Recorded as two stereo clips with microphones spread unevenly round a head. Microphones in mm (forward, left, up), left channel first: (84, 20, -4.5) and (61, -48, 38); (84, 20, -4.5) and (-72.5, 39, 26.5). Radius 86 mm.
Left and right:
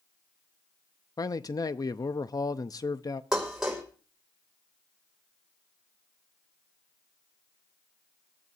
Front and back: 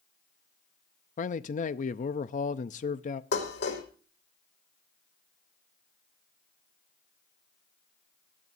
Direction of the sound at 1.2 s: 35° left.